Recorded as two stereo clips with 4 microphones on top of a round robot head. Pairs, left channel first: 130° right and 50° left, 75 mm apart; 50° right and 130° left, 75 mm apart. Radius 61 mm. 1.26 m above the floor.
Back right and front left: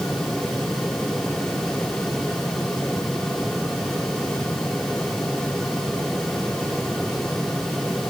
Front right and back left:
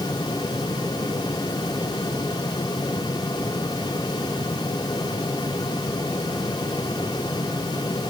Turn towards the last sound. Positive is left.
No sound to turn to.